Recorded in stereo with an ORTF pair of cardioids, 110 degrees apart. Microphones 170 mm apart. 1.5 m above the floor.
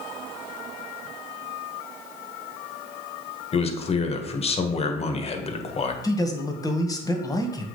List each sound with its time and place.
3.5 s a man speaking: 35° left, 1.3 m
6.0 s a man speaking: 20° left, 1.5 m